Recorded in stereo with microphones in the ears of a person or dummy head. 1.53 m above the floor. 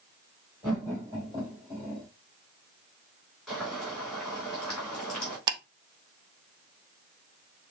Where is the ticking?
25° right (ahead or behind), 0.6 m.